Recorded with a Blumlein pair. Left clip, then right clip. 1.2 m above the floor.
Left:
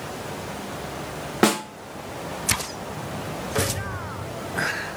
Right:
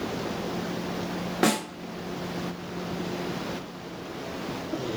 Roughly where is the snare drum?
Ahead.